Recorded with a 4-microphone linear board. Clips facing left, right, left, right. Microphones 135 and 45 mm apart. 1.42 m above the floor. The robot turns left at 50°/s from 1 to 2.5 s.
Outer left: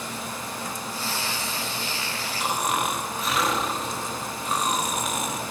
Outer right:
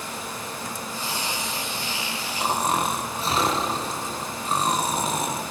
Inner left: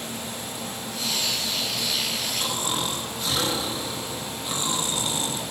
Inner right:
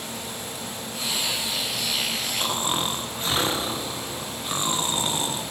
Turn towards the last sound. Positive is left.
turn(degrees=-30)  # may be behind; listen again after turning